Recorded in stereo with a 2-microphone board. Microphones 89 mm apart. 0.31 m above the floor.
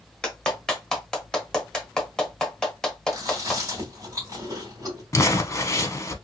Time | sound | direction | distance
0.2 | a clap | 5° left (ahead or behind) | 1.0 m
3.1 | chewing | 40° right (ahead or behind) | 1.8 m
5.1 | crumpling | 35° left (ahead or behind) | 0.6 m